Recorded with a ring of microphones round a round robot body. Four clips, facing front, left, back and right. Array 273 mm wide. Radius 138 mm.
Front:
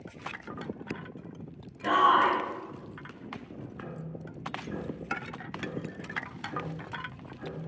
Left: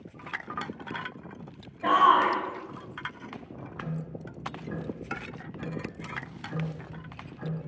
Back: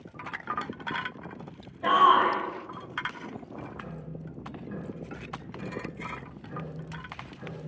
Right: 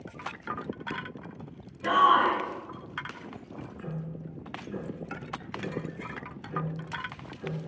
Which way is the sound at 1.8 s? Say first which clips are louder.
Left 1 dB, back 2 dB; 135° left.